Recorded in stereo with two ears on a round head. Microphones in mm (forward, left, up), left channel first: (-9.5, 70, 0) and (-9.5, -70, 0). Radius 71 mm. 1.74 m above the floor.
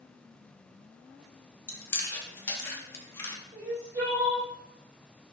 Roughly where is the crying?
Right.